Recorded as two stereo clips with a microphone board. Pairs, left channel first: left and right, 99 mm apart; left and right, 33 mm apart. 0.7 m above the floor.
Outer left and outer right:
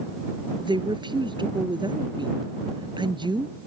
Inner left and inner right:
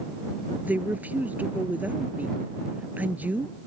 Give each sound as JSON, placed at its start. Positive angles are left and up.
{"t": 0.6, "sound": "a woman speaking", "side_deg": -50}